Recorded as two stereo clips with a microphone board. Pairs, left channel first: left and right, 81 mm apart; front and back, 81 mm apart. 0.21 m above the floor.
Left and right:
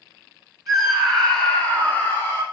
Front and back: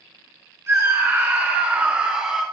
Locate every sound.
0.7 s a scream: 175° left, 1.9 m; by 2.4 s 105° left, 1.7 m